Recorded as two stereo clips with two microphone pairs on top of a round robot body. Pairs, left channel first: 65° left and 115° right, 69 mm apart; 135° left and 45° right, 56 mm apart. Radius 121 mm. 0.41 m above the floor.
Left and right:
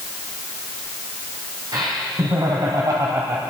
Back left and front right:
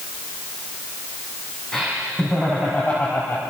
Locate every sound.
1.7 s laughter: 140° right, 4.5 m; by 3.4 s 165° right, 2.5 m